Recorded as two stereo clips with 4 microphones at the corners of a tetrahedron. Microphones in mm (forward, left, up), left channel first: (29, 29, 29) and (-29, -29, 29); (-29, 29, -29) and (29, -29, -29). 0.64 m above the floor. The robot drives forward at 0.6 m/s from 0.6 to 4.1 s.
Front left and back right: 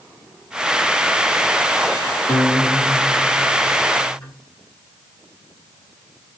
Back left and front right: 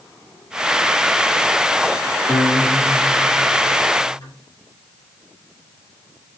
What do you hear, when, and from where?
2.3 s a guitar: 75° left, 2 m; by 4.3 s 105° left, 2 m